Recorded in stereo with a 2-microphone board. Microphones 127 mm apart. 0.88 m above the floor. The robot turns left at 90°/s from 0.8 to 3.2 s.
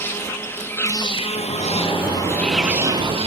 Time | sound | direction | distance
0.0 | an insect | 160° left | 1.1 m
1.4 | a sliding door | 65° left | 4 m